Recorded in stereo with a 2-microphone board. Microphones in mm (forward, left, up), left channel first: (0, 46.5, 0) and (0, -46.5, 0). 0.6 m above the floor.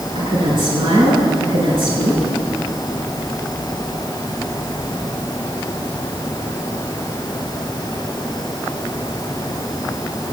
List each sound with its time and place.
0.1 s a woman speaking: 65° right (ahead or behind), 7.5 m